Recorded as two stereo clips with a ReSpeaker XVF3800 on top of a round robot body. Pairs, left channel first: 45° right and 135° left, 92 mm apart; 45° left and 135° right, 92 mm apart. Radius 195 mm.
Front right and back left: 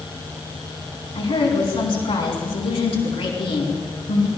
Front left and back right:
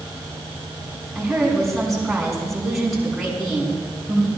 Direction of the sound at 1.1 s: 45° right.